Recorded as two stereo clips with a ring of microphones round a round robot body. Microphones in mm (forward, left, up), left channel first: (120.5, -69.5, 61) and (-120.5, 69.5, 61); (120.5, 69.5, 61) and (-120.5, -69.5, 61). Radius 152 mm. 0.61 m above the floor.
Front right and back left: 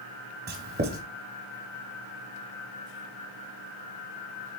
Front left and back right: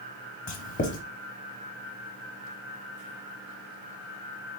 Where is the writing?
90° left, 0.8 m.